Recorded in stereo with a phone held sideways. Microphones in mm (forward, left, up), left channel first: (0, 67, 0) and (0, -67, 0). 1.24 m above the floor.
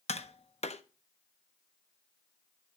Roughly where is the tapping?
Left.